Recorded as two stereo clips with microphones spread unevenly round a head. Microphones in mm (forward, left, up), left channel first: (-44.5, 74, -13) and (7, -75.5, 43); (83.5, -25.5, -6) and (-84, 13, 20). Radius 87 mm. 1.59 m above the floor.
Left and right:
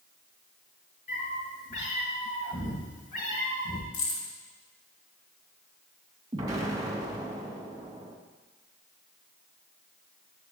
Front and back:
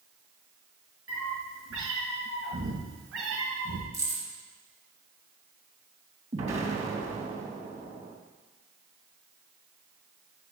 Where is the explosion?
140° right, 3 m.